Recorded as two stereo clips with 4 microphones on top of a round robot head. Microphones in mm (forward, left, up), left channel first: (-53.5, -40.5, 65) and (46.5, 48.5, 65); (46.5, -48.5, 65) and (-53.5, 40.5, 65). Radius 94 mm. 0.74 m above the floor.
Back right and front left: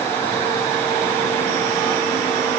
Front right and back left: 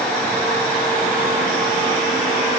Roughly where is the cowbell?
No cowbell in this recording.